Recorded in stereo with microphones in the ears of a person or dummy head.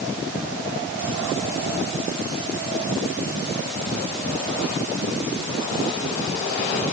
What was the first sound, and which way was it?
Only background noise.